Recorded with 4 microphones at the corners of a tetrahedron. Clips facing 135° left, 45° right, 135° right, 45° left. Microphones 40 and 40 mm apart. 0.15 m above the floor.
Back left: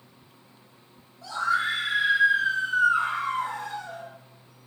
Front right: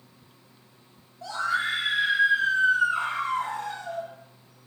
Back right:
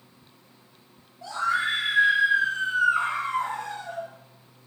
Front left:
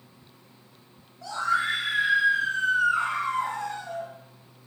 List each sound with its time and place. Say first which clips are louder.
1.2 s a scream: back left 1 dB, even; 80° right, 4.5 m